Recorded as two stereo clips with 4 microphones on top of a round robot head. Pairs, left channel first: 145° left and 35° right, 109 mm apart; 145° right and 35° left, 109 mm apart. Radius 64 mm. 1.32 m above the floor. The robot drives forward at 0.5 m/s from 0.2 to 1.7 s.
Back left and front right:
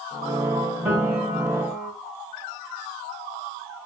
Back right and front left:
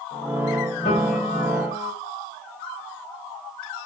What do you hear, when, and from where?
0.8 s a piano: 110° right, 5.5 m; by 1.9 s 115° right, 5.5 m